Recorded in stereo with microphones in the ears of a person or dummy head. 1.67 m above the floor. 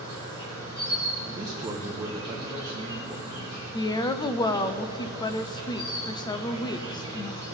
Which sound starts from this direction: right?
A man speaking, at 1.2 s.